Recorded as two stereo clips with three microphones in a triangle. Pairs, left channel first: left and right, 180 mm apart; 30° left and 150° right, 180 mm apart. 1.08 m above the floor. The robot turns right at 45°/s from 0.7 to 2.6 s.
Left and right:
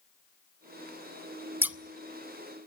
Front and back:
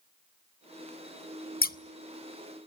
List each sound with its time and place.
1.6 s scissors: 15° right, 0.6 m; by 1.8 s 5° right, 0.6 m